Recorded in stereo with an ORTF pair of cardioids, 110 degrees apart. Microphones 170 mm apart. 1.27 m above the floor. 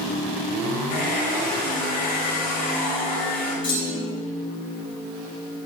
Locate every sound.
0.9 s a hair dryer: 60° left, 3.5 m
3.6 s a clunk: 30° left, 3 m